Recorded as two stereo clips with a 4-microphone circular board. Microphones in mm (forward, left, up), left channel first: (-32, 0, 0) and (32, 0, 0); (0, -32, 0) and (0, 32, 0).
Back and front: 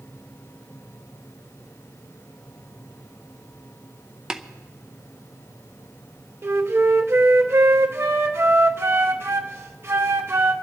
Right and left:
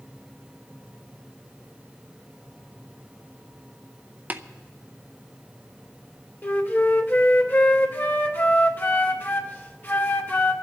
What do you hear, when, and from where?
4.3 s tapping: 70° left, 0.7 m
6.4 s a flute: 40° right, 1.0 m